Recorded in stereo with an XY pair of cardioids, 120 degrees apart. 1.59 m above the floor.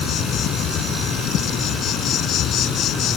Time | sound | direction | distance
0.0 | an insect | 65° left | ?